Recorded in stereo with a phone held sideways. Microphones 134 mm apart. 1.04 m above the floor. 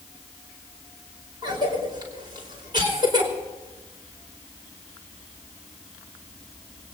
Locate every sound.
1.4 s a cough: 35° right (ahead or behind), 5 m